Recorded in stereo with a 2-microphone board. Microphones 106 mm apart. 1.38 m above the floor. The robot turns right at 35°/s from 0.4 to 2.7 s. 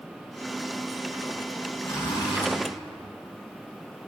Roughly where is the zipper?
Left.